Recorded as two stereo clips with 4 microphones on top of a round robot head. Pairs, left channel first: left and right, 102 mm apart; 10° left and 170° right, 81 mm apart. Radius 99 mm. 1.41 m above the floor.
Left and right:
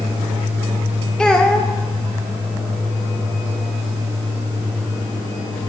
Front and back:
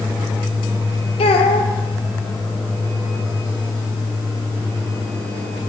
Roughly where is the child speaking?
Ahead.